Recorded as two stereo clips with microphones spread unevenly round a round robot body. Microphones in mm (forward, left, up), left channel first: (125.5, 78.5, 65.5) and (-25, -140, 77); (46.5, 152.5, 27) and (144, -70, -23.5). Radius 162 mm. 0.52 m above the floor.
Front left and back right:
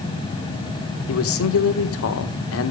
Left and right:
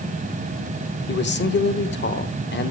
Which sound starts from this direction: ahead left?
A man speaking, at 1.1 s.